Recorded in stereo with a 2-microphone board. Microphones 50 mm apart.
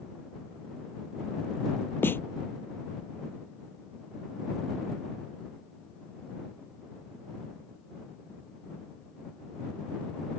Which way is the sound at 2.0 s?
45° left (ahead or behind).